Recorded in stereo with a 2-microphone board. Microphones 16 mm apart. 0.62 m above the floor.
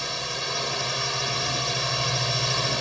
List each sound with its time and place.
0.0 s a drone: centre (ahead or behind)